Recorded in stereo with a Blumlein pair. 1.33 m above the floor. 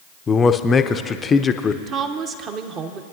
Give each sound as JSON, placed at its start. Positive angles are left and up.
{"t": 0.3, "sound": "a man speaking", "azimuth_deg": 20, "distance_m": 0.6}
{"t": 1.9, "sound": "a woman speaking", "azimuth_deg": -30, "distance_m": 0.9}